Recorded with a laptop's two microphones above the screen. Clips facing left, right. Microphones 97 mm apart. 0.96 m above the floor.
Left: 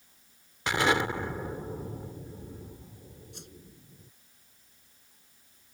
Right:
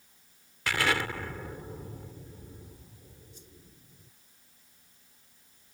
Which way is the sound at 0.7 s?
20° left (ahead or behind).